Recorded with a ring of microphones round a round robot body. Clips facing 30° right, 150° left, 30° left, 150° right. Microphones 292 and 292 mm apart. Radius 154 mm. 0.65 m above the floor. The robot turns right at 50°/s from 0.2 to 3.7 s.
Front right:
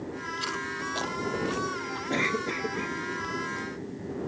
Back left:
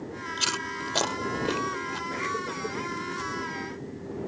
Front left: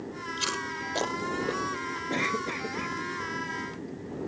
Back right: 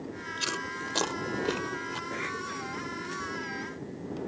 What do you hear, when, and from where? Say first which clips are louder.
0.4 s chewing: even, front left 1 dB; 110° left; by 2.0 s 165° right
2.1 s a cough: front right 6 dB, front left 6 dB; straight ahead; by 3.0 s 40° left